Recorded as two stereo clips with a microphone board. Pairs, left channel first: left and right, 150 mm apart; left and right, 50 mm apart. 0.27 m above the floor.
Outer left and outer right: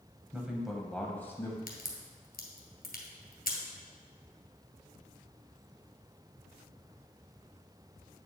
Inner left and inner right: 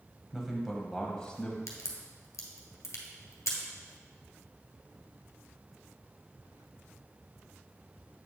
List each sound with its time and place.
0.3 s a man speaking: 10° right (ahead or behind), 1.1 m; by 1.6 s 20° left (ahead or behind), 1.3 m
1.7 s a crack: 70° left (ahead or behind), 1.4 m